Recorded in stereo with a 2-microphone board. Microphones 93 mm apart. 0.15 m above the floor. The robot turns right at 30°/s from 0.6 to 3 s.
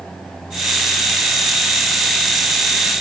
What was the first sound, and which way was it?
Only background noise.